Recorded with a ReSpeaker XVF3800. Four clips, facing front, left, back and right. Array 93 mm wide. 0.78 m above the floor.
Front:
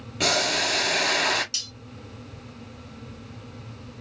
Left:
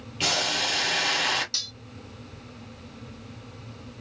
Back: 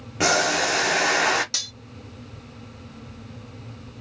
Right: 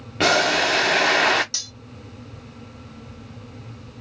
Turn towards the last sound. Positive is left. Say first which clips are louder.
# right 1 dB, back 4 dB
turn(degrees=-170)